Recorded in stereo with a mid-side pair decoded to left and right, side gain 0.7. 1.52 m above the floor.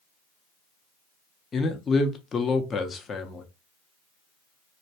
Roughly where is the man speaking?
Ahead left.